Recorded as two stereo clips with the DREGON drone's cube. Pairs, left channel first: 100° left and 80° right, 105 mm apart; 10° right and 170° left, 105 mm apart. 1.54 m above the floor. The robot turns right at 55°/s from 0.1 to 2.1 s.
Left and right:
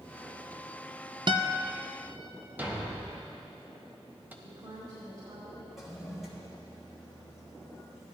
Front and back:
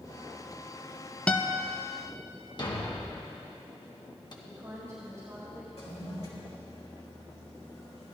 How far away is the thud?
About 1.2 m.